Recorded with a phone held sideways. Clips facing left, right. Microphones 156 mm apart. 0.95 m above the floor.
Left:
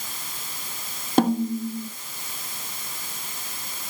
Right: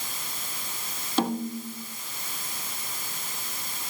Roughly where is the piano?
No piano in this recording.